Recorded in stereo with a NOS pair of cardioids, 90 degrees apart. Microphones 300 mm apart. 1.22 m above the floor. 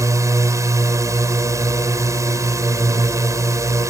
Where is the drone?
10° right.